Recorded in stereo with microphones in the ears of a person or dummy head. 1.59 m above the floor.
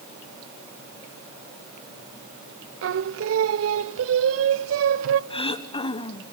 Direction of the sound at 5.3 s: 30° left (ahead or behind).